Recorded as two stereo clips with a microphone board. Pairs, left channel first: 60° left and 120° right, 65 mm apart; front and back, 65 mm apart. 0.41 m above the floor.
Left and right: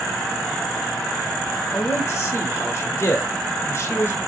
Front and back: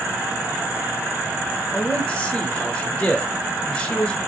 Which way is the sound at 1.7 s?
65° left.